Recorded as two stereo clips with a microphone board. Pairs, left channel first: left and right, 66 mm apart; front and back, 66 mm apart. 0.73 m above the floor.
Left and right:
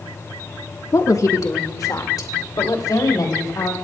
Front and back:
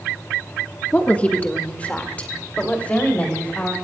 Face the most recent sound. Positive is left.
turn(degrees=65)